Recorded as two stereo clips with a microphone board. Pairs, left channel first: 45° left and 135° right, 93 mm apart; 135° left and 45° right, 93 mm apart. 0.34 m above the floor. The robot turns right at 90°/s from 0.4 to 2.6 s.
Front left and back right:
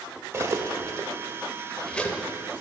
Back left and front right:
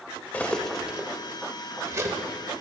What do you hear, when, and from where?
0.3 s cutlery clinking: 165° right, 0.6 m; by 2.2 s straight ahead, 0.6 m